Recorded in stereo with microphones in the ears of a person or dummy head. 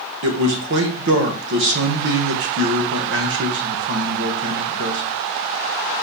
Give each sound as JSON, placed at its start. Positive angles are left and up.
{"t": 0.2, "sound": "a man speaking", "side_deg": -60, "distance_m": 1.7}